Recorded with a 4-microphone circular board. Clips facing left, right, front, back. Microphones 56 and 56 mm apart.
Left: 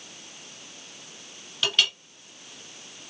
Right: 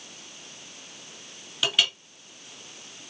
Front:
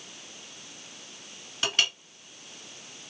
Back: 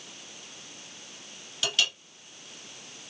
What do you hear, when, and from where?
1.6 s a clink: 15° right, 1.2 m